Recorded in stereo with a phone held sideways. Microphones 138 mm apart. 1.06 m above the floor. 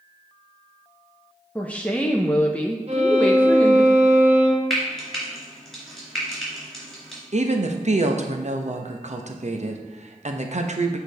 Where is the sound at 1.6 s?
10° left (ahead or behind), 0.6 m.